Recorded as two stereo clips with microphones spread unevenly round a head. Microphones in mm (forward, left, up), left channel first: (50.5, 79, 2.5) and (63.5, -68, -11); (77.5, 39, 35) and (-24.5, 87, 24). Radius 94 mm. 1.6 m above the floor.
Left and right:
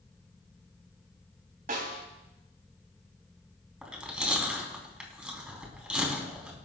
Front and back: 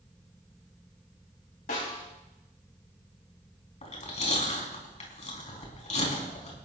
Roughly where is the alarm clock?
I don't hear an alarm clock.